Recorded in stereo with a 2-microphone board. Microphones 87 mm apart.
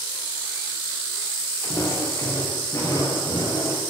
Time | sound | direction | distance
1.6 | footsteps | 30° left (ahead or behind) | 5.5 m